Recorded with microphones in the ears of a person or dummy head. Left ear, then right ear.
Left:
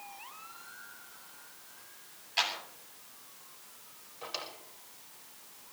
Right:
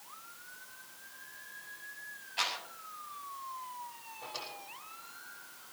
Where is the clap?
60° left (ahead or behind), 7.5 m.